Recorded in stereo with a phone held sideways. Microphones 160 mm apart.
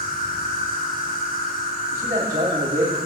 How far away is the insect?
About 2.5 m.